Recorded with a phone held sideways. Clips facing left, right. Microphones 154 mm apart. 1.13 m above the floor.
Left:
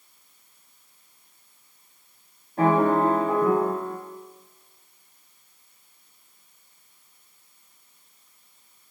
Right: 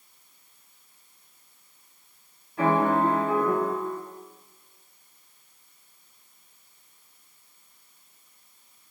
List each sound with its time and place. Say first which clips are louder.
2.6 s a piano: left 3 dB; 40° left (ahead or behind), 0.9 m